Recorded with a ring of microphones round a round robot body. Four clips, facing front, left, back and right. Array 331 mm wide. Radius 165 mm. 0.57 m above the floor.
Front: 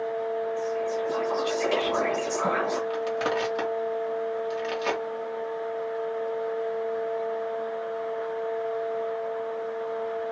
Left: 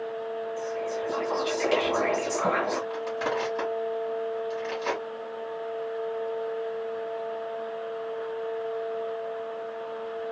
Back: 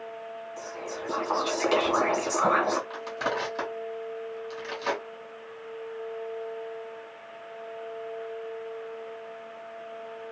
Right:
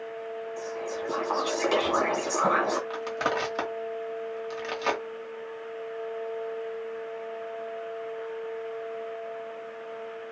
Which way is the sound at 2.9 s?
70° right.